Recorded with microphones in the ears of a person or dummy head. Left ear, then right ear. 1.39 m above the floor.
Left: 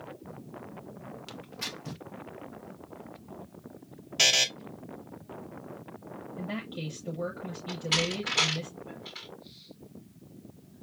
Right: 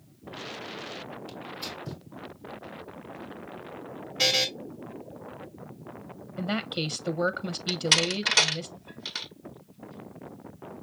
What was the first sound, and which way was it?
Tearing paper, 60° left (ahead or behind).